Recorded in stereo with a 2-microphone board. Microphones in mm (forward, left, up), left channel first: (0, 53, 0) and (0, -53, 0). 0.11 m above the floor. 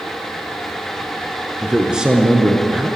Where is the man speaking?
10° right (ahead or behind), 1.2 m.